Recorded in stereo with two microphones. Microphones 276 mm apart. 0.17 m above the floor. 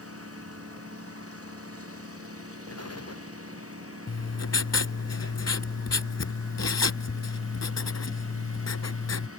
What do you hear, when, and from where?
0.0 s a lawn mower: 55° right (ahead or behind)
2.7 s an explosion: 60° left (ahead or behind)
4.1 s writing: 65° left (ahead or behind)